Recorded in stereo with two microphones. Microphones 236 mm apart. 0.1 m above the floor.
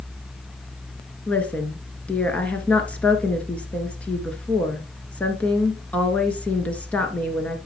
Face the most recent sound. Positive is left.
turn(degrees=5)  # may be behind; listen again after turning